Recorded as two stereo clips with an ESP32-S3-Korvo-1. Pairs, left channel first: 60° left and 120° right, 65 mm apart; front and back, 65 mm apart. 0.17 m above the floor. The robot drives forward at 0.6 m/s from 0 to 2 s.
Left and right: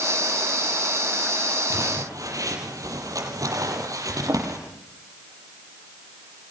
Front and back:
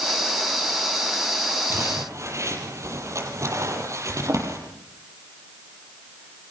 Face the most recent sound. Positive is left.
turn(degrees=-145)